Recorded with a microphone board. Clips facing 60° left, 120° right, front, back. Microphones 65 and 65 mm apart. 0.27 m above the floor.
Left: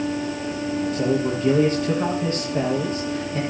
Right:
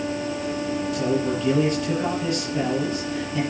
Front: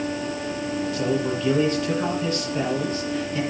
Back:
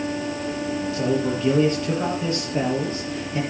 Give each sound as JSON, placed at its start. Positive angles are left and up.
{"t": 0.9, "sound": "a man speaking", "azimuth_deg": 115, "distance_m": 7.5}